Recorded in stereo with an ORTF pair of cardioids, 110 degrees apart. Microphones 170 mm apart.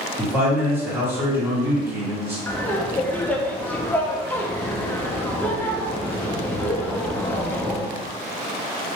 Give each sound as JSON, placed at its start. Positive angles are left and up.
{"t": 0.2, "sound": "a man speaking", "azimuth_deg": -15, "distance_m": 1.4}
{"t": 2.5, "sound": "laughter", "azimuth_deg": 10, "distance_m": 0.6}